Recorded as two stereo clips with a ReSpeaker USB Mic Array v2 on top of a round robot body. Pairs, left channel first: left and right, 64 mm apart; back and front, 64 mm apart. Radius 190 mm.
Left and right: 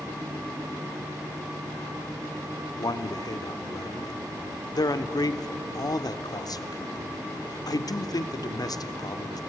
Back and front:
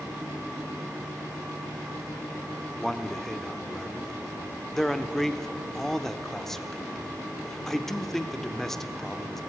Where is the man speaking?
95° left, 1.6 m.